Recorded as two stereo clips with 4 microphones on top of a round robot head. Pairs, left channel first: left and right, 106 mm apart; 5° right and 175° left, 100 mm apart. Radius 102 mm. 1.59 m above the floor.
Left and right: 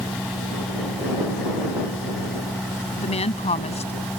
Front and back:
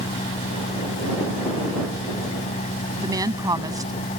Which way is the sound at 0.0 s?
5° left.